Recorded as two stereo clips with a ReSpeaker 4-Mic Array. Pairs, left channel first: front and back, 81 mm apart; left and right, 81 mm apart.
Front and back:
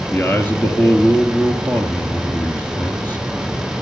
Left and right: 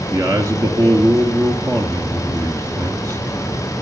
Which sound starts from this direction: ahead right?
A man speaking, at 0.1 s.